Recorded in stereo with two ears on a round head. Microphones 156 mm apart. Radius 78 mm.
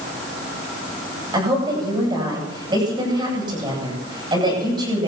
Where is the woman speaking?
25° right (ahead or behind), 9.5 m.